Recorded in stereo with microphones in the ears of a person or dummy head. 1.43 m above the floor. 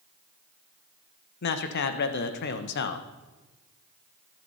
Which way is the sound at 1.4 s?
60° left (ahead or behind).